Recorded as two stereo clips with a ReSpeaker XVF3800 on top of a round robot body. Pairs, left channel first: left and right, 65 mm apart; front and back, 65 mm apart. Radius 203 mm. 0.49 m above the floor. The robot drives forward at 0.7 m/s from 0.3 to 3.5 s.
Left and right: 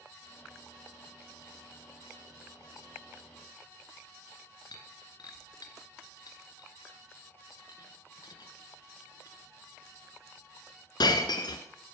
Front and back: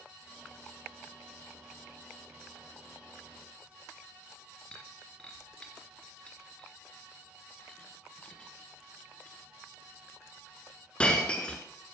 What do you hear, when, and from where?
4.7 s breaking glass: 75° left, 1.5 m